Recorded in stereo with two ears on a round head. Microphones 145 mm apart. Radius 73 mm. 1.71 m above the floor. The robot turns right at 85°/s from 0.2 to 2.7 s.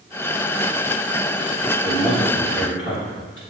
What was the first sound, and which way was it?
A man speaking, straight ahead.